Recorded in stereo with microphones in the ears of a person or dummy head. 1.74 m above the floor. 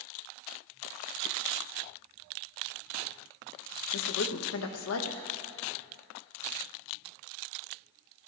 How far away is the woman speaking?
About 1.2 m.